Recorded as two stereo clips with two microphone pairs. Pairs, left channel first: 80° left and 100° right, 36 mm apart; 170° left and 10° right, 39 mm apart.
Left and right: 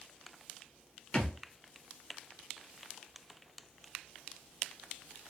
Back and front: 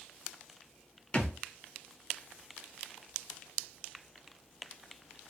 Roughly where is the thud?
Behind left.